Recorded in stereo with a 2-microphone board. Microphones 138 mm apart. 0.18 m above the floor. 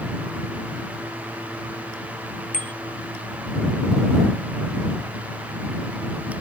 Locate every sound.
2.5 s a bicycle bell: 70° left (ahead or behind)